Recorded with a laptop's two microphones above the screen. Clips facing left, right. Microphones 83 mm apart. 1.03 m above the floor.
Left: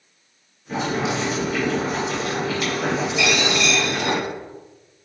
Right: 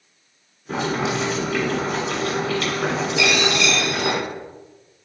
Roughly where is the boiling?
Right.